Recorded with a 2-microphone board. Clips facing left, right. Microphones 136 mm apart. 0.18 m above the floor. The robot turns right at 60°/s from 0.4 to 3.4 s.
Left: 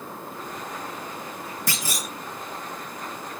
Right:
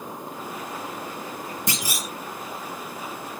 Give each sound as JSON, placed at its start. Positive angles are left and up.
{"t": 1.7, "sound": "a clunk", "side_deg": -20, "distance_m": 1.5}